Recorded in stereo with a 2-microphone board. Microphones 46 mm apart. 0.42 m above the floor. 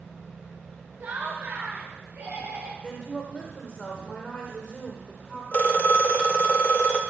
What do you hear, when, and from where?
1.0 s laughter: 45° right (ahead or behind), 1.2 m; by 2.7 s 50° right (ahead or behind), 2.5 m
2.8 s a woman speaking: 25° left (ahead or behind), 1.1 m
5.5 s a phone ringing: 40° left (ahead or behind), 0.6 m